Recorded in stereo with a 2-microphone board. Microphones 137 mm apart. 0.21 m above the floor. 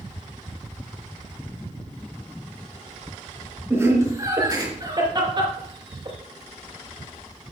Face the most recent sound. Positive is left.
turn(degrees=-45)  # may be behind; listen again after turning